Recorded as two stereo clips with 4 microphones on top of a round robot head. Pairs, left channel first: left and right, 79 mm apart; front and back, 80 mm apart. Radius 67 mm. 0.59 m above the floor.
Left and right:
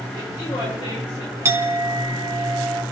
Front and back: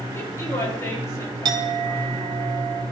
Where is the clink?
145° right, 1.3 m.